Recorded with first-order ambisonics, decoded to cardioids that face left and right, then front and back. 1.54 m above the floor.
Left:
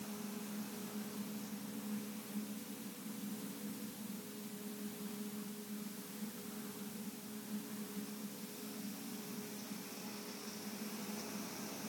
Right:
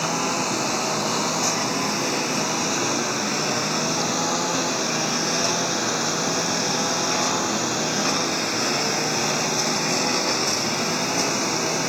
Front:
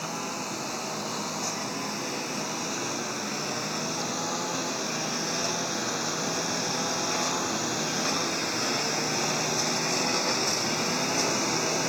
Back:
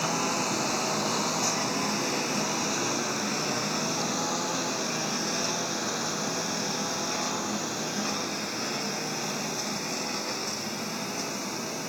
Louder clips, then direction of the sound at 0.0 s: Right 25 dB, back 5 dB; 105° right.